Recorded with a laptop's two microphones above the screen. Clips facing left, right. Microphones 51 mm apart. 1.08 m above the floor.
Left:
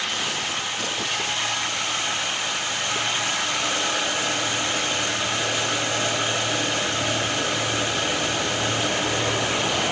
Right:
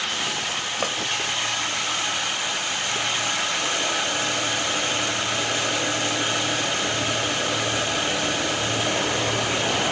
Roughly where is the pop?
Right.